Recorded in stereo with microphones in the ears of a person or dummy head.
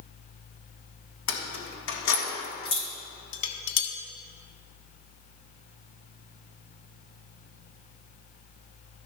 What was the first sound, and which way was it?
Keys jangling, 60° left (ahead or behind).